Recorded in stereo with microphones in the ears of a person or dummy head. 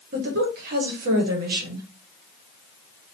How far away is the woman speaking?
About 1.3 m.